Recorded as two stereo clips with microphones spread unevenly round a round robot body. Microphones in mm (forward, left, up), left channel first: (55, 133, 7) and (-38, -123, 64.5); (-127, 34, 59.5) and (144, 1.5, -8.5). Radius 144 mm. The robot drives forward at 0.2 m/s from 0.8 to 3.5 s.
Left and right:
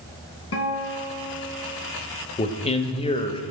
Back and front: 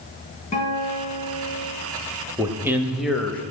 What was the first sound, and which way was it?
A guitar, 115° left.